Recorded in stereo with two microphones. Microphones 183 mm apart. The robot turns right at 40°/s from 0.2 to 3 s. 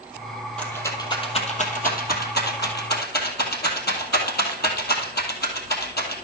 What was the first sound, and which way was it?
A rattle, 5° left (ahead or behind).